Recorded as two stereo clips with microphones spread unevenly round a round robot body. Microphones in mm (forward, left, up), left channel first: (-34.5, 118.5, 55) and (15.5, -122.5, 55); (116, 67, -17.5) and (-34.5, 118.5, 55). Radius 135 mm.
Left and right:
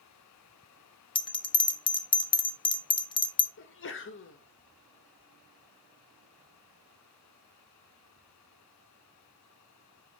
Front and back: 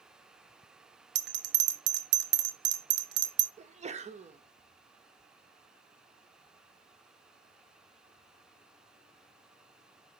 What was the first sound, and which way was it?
A bell, 165° left.